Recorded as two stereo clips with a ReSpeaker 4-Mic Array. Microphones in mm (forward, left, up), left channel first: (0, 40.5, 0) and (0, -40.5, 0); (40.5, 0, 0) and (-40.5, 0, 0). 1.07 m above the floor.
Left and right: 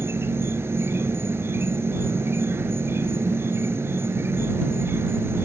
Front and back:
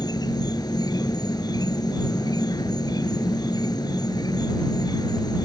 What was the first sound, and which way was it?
An insect, 30° right.